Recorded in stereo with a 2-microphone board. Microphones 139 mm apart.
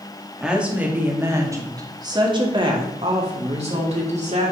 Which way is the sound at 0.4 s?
5° right (ahead or behind).